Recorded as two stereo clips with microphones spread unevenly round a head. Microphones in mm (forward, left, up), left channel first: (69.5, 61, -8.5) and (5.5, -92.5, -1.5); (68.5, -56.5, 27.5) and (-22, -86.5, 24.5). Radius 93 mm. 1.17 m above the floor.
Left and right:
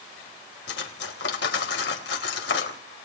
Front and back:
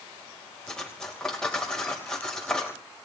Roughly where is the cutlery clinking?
Left.